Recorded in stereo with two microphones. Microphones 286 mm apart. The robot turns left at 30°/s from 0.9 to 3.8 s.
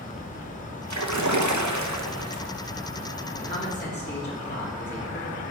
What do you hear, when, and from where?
0.9 s a splash: 75° right, 0.8 m; by 2.5 s 125° right, 0.8 m
3.4 s a man speaking: 25° left (ahead or behind), 3 m; by 5.4 s 40° left (ahead or behind), 3 m